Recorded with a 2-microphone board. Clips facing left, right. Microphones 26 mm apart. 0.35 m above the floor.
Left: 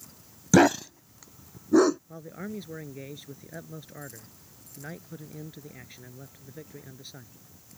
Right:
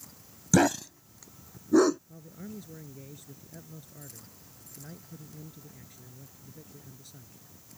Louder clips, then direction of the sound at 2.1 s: Left 6 dB; 40° left (ahead or behind).